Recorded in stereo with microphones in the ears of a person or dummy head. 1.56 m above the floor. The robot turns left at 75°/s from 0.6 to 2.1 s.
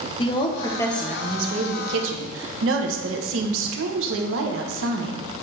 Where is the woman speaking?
35° left, 1.1 m; by 5.2 s 80° right, 1.1 m.